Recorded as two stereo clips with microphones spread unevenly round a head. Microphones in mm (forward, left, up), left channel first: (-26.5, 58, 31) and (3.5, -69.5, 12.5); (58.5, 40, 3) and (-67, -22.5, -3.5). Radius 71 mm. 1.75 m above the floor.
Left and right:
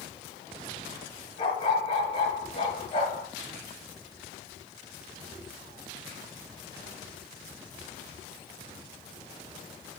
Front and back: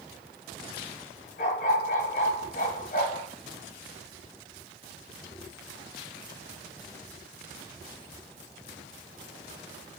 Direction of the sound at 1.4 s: 50° left.